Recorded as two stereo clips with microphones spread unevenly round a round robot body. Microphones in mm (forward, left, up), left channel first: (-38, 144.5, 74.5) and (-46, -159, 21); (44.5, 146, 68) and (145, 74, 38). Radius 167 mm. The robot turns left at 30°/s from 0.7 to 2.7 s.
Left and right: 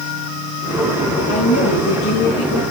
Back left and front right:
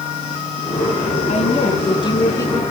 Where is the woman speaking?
110° left, 3.5 m; by 2.6 s 75° left, 3.5 m.